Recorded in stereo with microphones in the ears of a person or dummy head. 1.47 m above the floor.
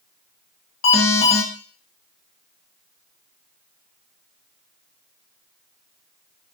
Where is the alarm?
60° left (ahead or behind), 1.2 m.